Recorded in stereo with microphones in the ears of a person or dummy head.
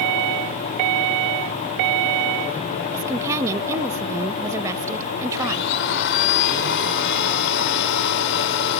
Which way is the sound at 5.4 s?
75° left (ahead or behind).